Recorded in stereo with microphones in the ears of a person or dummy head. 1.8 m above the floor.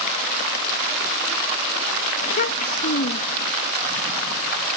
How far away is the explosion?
No explosion in this recording.